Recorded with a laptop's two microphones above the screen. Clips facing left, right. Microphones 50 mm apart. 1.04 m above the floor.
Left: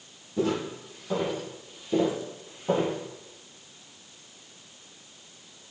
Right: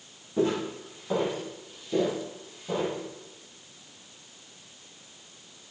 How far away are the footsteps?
About 2.5 m.